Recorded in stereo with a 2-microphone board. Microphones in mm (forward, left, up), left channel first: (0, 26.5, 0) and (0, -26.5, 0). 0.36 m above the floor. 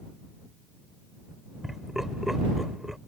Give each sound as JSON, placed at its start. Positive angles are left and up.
{"t": 1.6, "sound": "laughter", "side_deg": -10}